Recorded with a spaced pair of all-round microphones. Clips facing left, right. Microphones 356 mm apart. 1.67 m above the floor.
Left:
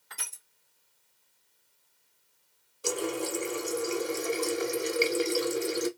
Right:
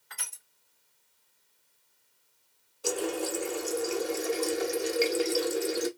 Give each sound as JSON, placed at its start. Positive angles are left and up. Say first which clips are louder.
{"t": 0.1, "sound": "crushing", "louder": "left 1 dB", "side_deg": 50, "distance_m": 1.6}
{"t": 2.8, "sound": "a running tap", "louder": "right 1 dB", "side_deg": 5, "distance_m": 0.7}